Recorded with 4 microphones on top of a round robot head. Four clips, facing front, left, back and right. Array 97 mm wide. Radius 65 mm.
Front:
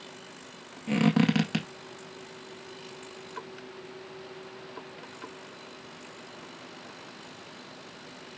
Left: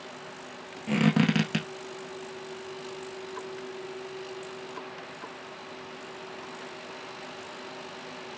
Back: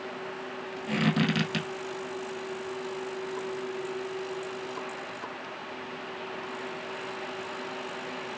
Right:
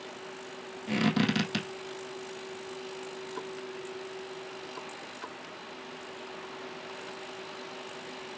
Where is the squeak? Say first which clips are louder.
Left 4 dB, front 3 dB; 40° left, 1.8 m.